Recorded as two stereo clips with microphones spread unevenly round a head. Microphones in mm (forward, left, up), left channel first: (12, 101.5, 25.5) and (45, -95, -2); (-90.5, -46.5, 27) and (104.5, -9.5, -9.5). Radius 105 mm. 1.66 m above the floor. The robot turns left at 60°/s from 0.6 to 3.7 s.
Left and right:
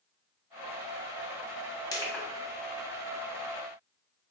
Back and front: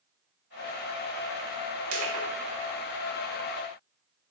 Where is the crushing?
35° left, 1.1 m; by 2.2 s 15° left, 1.1 m.